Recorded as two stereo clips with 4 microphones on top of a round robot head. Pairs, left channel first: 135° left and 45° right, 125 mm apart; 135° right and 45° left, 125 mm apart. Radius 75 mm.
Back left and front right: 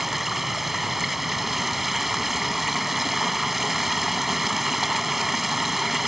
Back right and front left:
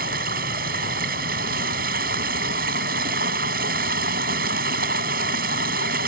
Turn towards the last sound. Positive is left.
turn(degrees=40)